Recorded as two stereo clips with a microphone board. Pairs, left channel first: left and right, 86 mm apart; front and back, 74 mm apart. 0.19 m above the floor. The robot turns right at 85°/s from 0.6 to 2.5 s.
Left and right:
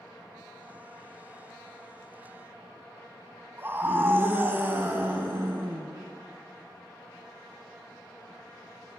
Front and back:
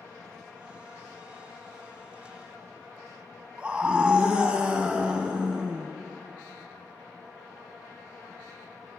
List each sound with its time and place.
3.6 s a scream: 120° right, 1.6 m